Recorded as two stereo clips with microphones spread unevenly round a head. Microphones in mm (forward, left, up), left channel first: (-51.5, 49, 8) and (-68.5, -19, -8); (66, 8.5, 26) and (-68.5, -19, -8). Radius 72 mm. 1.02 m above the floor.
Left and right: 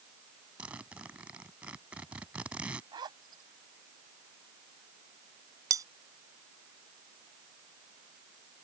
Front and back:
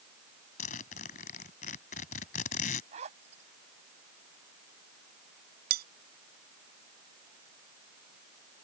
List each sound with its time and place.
0.6 s a zipper: 20° right
2.9 s a zipper: 125° right
5.7 s cutlery clinking: 145° right